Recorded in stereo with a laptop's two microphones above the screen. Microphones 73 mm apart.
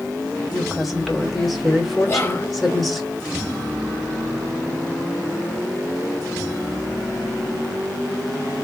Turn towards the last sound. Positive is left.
turn(degrees=30)  # may be behind; listen again after turning